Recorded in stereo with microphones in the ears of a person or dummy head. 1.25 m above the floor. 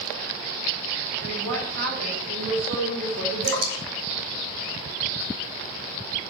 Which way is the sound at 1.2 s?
55° right (ahead or behind).